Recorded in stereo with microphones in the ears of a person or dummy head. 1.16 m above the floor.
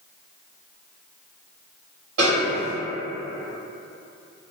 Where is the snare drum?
65° right (ahead or behind), 1.6 m.